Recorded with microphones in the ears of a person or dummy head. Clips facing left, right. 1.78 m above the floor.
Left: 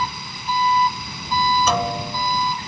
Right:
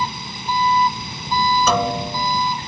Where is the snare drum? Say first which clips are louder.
Right 2 dB; 75° right (ahead or behind).